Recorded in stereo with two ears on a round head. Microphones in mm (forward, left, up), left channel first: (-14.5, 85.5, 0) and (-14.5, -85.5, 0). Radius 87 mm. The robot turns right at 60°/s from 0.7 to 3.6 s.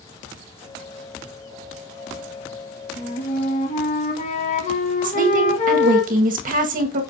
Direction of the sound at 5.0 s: 45° right (ahead or behind).